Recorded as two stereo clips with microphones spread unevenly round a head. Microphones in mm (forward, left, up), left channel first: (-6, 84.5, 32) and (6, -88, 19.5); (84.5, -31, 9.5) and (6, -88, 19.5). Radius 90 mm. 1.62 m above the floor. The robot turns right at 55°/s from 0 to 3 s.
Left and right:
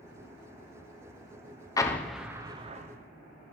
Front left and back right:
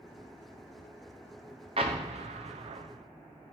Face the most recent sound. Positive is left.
turn(degrees=-130)